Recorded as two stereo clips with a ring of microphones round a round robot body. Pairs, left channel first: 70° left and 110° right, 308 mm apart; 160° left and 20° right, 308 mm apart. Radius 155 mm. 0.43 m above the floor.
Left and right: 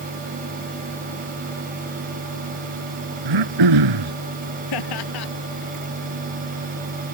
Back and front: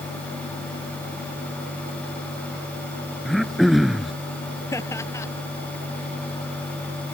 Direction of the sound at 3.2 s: 110° right.